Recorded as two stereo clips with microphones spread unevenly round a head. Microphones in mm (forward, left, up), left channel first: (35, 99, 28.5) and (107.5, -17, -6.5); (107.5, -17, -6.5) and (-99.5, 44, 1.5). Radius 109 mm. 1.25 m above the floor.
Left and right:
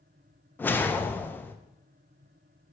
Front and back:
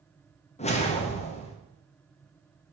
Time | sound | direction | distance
0.6 | a whoosh | 45° left | 0.7 m